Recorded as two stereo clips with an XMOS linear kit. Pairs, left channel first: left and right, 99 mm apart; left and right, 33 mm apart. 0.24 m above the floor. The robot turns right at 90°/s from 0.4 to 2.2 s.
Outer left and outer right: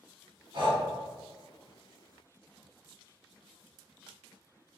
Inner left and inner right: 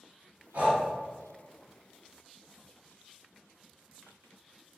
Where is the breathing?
60° right (ahead or behind), 1.2 m; by 0.8 s 55° right (ahead or behind), 1.2 m.